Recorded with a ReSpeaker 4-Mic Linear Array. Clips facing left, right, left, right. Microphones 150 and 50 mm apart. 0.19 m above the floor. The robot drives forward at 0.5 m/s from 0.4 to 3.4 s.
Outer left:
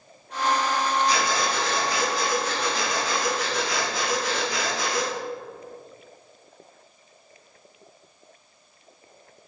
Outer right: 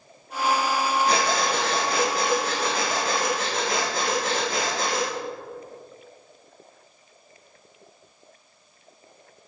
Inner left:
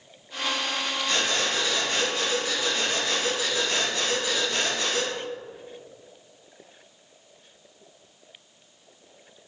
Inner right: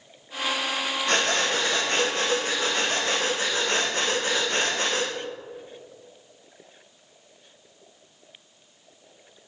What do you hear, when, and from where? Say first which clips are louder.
1.1 s breathing: outer right 2 dB, inner right 4 dB; 65° right (ahead or behind), 5.5 m; by 5.1 s 55° right (ahead or behind), 6.5 m